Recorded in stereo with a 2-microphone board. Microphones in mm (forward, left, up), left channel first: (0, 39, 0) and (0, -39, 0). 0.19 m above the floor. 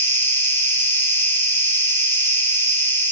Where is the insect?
25° left (ahead or behind), 4 m.